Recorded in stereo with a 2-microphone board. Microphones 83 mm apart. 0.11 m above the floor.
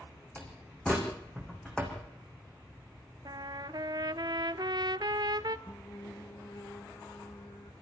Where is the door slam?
10° left (ahead or behind), 4.5 m.